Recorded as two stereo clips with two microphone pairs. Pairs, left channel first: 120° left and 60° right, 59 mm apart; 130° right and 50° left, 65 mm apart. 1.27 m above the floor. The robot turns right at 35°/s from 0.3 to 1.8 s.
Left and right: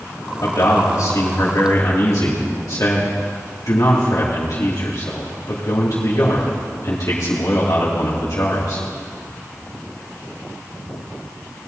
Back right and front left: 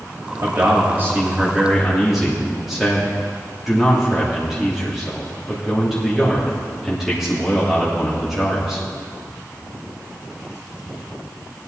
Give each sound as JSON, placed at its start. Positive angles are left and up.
{"t": 0.4, "sound": "a man speaking", "azimuth_deg": 90, "distance_m": 2.5}